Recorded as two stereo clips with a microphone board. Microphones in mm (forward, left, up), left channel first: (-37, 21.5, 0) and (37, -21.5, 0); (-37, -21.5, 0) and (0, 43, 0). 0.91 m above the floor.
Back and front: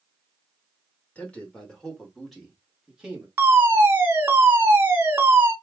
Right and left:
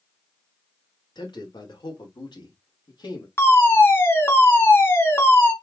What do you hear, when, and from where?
1.1 s a man speaking: 135° right, 2.5 m; by 3.3 s 110° right, 2 m
3.4 s a fire alarm: 85° right, 1.6 m